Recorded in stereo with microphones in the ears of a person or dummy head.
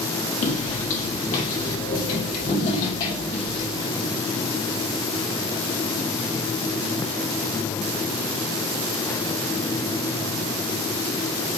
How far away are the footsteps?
About 2.0 m.